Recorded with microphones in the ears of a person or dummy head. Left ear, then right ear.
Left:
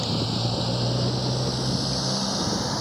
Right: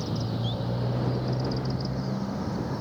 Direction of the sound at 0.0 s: 80° left.